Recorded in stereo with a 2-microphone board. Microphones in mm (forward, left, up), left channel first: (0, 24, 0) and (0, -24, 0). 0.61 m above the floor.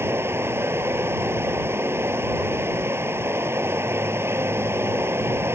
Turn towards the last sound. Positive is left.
turn(degrees=-75)  # may be behind; listen again after turning